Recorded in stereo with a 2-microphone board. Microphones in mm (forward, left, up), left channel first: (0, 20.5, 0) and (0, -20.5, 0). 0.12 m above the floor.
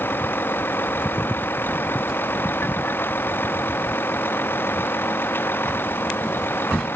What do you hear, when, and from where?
0.0 s a vehicle: 60° left (ahead or behind)